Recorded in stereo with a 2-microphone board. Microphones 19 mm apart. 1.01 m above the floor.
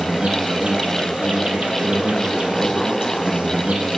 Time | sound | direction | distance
0.0 | an insect | 70° right (ahead or behind) | 1.3 m